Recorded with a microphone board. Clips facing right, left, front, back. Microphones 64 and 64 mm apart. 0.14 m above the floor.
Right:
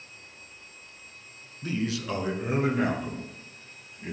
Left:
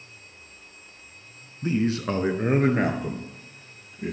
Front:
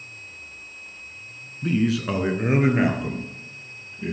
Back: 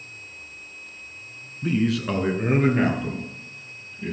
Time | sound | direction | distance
1.6 | a man speaking | 100° left | 1.1 m